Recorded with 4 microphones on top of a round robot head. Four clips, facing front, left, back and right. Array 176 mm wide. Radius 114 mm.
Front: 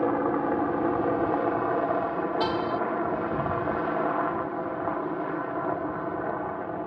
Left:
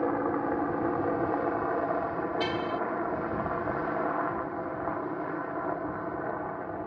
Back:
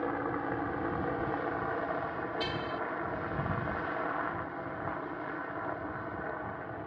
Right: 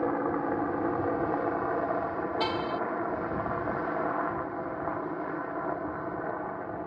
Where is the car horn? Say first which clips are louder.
Even, front 9 dB; 30° right.